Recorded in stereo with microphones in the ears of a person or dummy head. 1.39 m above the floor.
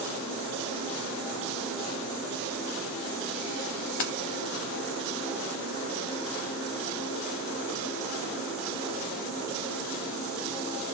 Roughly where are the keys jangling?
Left.